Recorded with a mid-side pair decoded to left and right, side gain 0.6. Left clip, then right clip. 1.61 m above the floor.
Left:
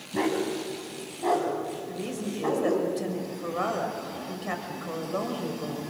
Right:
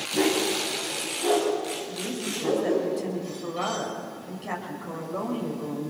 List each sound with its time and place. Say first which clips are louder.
0.1 s a dog barking: right 3 dB; 25° left, 5.5 m; by 2.9 s 45° left, 5.5 m
1.9 s a woman speaking: right 2 dB; 20° left, 6 m